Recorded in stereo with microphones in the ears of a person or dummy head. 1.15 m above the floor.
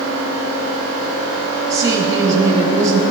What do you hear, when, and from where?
1.7 s a woman speaking: 30° right (ahead or behind), 5 m